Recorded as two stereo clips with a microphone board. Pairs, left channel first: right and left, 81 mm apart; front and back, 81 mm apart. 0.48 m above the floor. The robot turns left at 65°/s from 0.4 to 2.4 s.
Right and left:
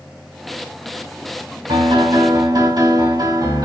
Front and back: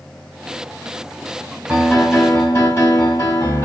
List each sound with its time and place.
1.7 s a piano: 105° left, 2.5 m; by 3.6 s 55° left, 2.5 m